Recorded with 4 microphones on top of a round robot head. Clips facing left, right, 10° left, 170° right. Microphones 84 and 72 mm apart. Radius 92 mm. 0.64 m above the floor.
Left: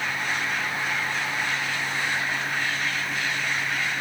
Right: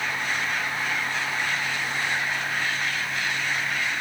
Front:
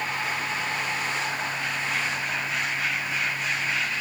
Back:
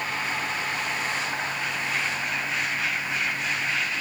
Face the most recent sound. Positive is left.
No sound to turn to.